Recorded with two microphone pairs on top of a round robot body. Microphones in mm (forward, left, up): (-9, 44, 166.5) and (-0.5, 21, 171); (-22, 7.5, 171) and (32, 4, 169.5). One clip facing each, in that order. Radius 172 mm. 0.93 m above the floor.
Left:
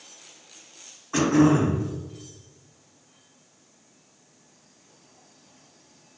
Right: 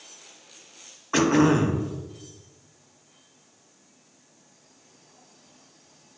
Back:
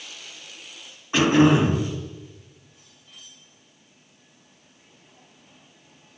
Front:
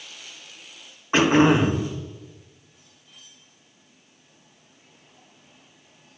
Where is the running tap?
No running tap in this recording.